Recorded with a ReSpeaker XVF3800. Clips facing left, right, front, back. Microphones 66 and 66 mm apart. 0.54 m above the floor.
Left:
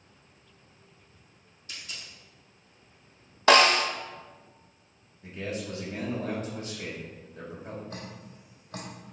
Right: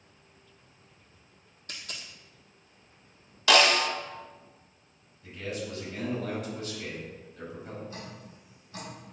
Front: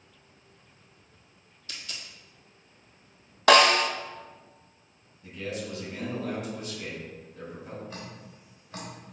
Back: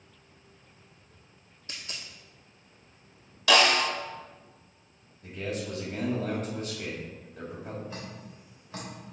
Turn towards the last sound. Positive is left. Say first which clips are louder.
# left 1 dB, back 1 dB
turn(degrees=95)